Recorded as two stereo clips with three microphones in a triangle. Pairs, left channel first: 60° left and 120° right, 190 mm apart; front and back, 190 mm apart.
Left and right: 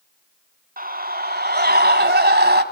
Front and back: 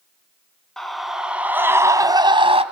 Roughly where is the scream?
Right.